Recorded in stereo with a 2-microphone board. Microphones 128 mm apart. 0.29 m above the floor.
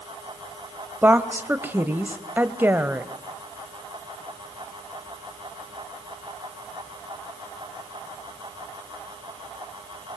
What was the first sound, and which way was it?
A woman speaking, 15° right (ahead or behind).